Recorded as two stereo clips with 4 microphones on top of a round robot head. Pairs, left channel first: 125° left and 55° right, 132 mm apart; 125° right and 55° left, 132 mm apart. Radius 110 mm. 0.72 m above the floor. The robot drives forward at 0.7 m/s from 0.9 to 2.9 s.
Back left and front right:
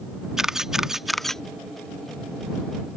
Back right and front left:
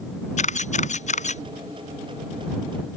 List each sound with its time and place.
0.4 s a camera shutter: 140° right; by 1.4 s 150° right